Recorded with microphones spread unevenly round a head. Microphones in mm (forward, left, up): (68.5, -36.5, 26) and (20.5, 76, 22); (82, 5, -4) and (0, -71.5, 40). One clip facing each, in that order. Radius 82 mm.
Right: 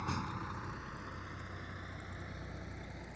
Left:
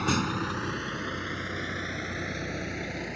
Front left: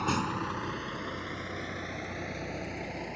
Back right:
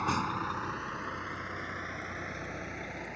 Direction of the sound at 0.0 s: 120° left.